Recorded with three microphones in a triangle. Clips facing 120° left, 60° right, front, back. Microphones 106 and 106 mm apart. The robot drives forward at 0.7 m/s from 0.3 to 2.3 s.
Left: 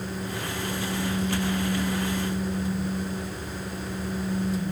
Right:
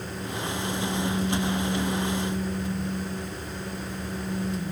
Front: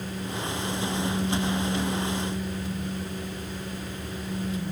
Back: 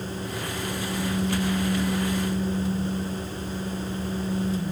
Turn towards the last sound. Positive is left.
No sound to turn to.